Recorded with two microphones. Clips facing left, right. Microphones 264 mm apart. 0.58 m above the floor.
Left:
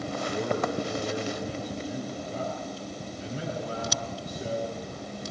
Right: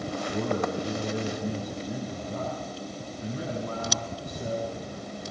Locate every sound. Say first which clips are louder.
0.3 s a man speaking: right 1 dB; 55° right (ahead or behind), 5.5 m